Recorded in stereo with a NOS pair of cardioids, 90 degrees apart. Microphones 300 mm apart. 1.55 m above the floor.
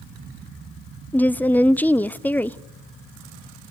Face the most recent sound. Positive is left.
turn(degrees=5)